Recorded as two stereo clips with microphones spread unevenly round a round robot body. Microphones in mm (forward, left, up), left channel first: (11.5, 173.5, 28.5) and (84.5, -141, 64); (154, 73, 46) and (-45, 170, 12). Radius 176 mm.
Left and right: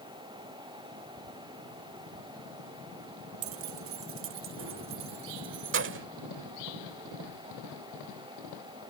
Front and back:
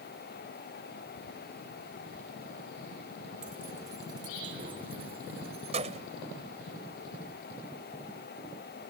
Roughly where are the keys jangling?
Behind right.